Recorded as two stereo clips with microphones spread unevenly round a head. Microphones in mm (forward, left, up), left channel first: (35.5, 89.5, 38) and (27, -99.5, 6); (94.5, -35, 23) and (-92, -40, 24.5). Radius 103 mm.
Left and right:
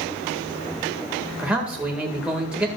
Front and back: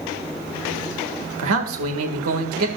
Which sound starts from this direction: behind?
A man speaking, at 1.4 s.